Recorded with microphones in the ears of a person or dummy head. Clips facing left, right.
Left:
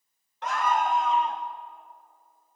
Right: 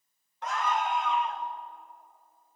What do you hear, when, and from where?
0.4 s a scream: 50° left (ahead or behind), 1.1 m; by 1.4 s 30° left (ahead or behind), 2.5 m